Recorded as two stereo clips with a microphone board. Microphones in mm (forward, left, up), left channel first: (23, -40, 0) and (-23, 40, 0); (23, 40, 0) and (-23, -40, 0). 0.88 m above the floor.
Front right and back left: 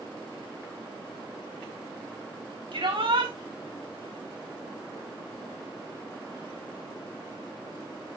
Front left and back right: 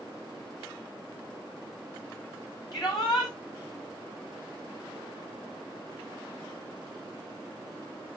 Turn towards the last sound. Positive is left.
turn(degrees=105)